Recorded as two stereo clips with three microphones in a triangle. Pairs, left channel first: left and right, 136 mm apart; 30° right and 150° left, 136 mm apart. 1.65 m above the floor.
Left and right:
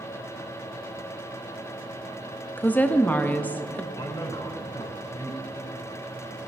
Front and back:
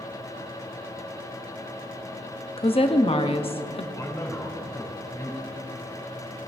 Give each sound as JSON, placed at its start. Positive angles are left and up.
{"t": 2.6, "sound": "a woman speaking", "azimuth_deg": 10, "distance_m": 0.6}
{"t": 4.0, "sound": "a man speaking", "azimuth_deg": 30, "distance_m": 2.5}